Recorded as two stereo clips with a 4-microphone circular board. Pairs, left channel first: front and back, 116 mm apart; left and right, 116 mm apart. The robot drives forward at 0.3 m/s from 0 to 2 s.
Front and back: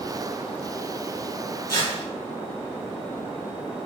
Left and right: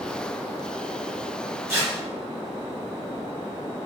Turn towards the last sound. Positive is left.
turn(degrees=-45)